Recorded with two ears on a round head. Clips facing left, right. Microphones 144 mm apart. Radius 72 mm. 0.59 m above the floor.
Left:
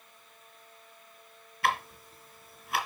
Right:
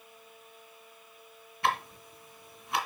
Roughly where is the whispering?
I don't hear whispering.